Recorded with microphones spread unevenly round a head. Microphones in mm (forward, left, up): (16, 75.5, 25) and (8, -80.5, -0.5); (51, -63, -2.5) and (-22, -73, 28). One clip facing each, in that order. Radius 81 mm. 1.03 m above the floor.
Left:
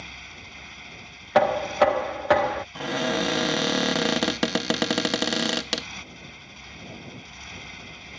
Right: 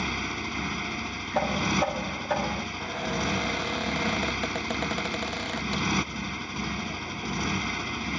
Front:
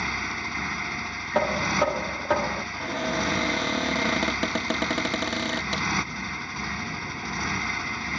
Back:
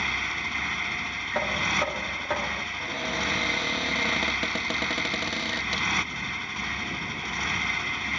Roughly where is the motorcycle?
Right.